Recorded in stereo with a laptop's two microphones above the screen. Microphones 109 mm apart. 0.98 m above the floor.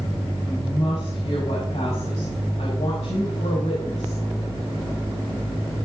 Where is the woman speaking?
75° left (ahead or behind), 5.5 m.